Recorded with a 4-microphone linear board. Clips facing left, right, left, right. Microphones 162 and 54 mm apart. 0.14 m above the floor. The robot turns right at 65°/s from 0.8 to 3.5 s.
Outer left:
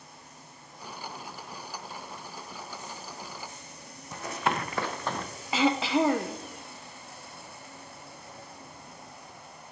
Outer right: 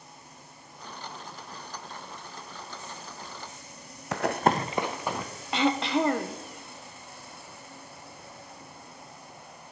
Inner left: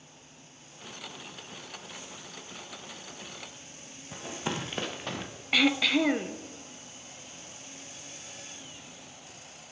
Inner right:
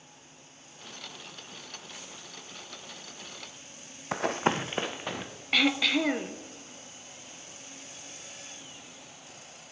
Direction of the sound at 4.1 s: 85° right.